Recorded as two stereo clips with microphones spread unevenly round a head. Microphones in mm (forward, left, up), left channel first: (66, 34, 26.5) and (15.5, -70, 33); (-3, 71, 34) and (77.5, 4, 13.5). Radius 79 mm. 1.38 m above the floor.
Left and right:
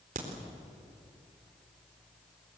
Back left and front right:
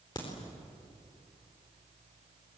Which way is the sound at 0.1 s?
155° right.